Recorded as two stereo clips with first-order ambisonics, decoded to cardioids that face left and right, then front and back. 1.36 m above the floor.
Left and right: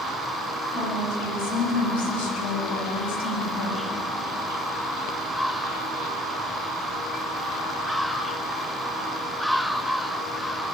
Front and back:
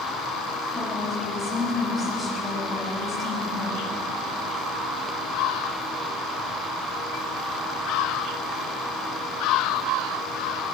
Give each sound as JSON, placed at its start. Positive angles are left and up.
{"t": 0.7, "sound": "a woman speaking", "azimuth_deg": 85, "distance_m": 10.0}